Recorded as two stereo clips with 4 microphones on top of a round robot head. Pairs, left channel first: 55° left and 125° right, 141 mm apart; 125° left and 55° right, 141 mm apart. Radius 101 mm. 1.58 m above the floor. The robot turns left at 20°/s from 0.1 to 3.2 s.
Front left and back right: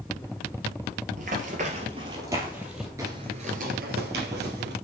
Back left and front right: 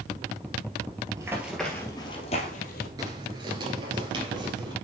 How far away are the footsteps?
About 1.6 m.